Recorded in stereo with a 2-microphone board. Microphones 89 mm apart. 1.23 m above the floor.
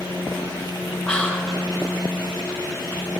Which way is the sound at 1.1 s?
10° left (ahead or behind).